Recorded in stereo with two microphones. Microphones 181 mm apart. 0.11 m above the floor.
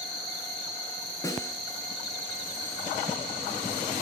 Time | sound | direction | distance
1.2 | a snare drum | 20° left (ahead or behind) | 1.5 m